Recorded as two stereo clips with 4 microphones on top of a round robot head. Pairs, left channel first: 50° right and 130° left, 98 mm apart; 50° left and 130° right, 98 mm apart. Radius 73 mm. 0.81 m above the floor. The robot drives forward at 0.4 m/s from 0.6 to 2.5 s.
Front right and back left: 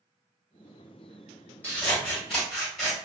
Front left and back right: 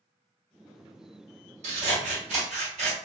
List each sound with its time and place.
1.6 s scissors: 125° right, 1.2 m; by 3.0 s 135° right, 1.4 m